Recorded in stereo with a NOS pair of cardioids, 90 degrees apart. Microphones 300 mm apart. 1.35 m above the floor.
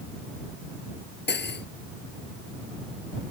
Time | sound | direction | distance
1.3 | cutlery clinking | 30° left | ?